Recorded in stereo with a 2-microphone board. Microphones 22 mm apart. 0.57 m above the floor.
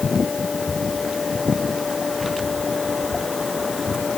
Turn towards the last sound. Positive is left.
No sound to turn to.